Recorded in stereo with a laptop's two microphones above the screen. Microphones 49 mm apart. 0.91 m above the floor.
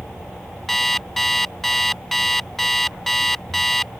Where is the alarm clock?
5° left (ahead or behind).